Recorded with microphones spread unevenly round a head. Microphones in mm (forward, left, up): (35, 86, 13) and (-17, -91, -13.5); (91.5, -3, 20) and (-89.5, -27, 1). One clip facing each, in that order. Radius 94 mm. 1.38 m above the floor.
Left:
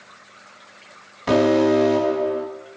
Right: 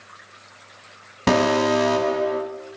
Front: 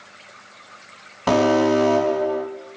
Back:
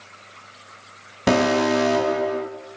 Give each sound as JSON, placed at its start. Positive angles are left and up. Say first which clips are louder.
{"t": 1.3, "sound": "an alarm", "louder": "left 3 dB, front 2 dB", "azimuth_deg": -110, "distance_m": 5.0}